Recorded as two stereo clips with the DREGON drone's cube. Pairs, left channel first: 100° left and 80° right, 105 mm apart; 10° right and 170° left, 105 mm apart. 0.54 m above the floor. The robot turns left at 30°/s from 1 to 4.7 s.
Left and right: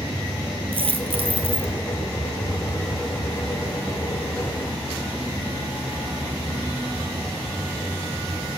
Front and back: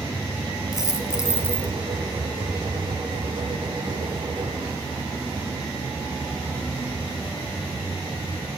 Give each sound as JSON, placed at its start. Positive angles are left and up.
{"t": 0.7, "sound": "a dropped coin", "azimuth_deg": -65, "distance_m": 0.9}